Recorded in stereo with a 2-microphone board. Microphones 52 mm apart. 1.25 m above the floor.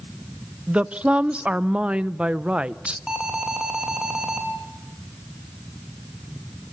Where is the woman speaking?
20° right (ahead or behind), 0.6 m.